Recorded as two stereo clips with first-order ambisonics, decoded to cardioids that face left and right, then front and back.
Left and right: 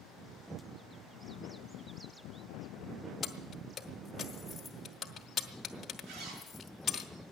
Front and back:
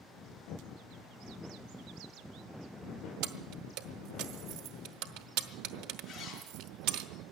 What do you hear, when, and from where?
3.2 s keys jangling: 160° left, 1.0 m
6.1 s a zipper: 75° right, 5.5 m